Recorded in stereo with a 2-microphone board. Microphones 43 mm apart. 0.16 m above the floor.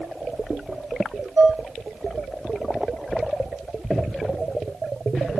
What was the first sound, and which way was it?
Dishes clattering, 60° right (ahead or behind).